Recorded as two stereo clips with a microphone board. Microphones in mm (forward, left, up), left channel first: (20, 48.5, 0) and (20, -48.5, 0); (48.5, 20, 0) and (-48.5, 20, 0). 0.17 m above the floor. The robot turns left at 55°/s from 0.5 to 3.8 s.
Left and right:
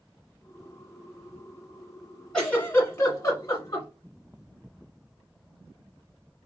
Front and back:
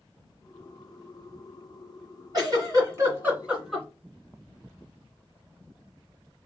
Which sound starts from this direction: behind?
A giggle, at 2.3 s.